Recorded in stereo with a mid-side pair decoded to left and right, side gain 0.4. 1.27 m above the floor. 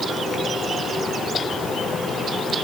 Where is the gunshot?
No gunshot in this recording.